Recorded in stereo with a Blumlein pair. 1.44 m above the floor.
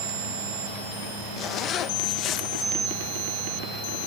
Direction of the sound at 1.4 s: 30° left.